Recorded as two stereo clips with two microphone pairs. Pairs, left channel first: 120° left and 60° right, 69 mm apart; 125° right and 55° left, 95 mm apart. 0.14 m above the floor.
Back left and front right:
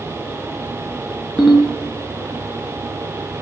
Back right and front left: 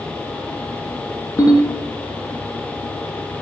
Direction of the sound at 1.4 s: 160° right.